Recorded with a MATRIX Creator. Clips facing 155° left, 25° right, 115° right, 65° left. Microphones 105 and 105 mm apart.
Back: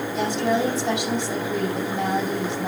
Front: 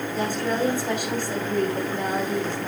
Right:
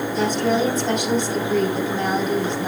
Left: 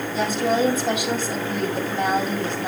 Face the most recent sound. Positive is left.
turn(degrees=150)